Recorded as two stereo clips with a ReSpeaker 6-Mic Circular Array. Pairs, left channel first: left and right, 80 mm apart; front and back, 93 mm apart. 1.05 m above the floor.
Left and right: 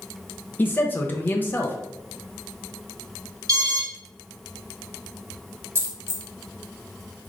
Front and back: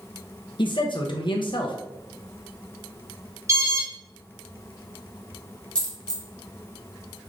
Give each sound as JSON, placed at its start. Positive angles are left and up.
{"t": 0.6, "sound": "a man speaking", "azimuth_deg": 25, "distance_m": 0.6}
{"t": 3.5, "sound": "an alarm", "azimuth_deg": -125, "distance_m": 2.0}
{"t": 5.8, "sound": "a dropped coin", "azimuth_deg": -70, "distance_m": 0.9}